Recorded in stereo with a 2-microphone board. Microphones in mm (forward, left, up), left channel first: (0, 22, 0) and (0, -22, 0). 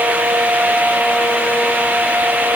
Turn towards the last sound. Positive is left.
No sound to turn to.